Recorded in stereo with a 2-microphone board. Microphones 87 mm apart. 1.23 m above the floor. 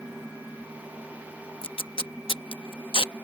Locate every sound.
1.6 s tape being pulled: 70° left (ahead or behind)